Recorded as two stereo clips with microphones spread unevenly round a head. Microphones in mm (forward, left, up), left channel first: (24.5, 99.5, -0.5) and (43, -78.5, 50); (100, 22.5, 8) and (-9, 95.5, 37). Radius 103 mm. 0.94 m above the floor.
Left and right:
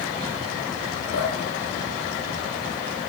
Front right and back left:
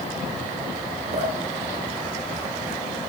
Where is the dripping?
110° left, 4 m.